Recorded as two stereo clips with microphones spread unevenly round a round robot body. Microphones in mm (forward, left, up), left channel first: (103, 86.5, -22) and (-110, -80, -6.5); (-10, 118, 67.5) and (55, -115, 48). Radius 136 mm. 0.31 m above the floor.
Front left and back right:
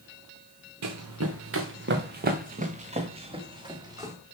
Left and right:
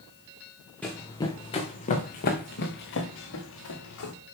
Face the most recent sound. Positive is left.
turn(degrees=140)